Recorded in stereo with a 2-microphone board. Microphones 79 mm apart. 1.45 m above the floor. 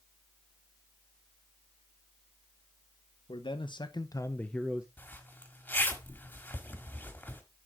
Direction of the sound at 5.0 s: 20° left (ahead or behind).